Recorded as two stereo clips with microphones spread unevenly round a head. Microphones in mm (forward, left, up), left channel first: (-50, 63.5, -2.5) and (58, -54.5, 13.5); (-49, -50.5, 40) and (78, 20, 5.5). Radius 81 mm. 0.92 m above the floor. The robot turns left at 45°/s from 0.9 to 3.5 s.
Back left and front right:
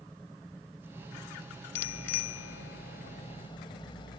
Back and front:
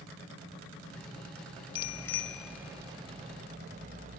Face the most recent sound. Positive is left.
turn(degrees=70)